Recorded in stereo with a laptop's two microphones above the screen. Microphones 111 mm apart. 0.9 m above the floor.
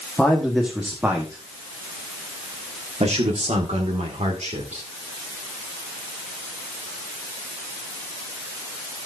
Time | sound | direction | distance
0.2 | a man speaking | 5° left (ahead or behind) | 1.3 m